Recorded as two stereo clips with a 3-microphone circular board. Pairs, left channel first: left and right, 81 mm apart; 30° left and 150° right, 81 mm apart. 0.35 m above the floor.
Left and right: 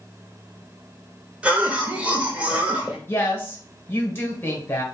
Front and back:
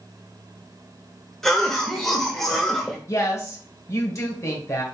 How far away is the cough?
About 0.8 m.